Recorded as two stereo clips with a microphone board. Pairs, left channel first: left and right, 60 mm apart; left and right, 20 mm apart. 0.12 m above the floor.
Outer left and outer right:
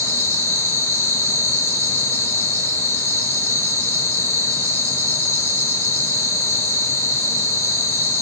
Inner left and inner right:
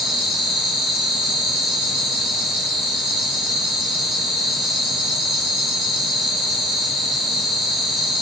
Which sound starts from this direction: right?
An insect, at 0.0 s.